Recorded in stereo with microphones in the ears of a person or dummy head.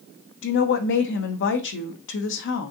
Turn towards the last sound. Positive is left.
turn(degrees=60)  # may be behind; listen again after turning